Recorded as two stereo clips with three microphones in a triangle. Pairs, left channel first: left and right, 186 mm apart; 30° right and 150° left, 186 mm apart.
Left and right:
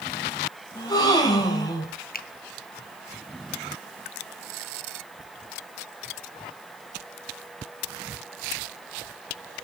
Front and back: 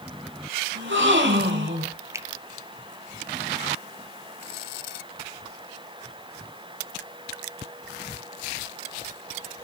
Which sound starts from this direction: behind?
A gasp, at 0.8 s.